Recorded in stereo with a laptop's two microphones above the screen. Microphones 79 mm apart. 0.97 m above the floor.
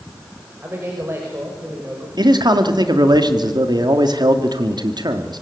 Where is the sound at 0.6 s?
30° right (ahead or behind), 5.5 m.